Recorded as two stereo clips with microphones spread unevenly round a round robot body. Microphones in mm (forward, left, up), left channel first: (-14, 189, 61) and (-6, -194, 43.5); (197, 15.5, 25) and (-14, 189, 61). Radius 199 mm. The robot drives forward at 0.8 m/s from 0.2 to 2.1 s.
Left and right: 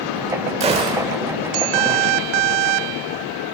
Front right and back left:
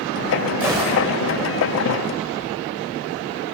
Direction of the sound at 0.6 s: 150° right.